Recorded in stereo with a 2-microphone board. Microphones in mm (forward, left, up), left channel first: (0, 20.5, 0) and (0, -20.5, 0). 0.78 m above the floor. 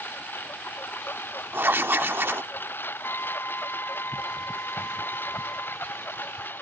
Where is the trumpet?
80° left.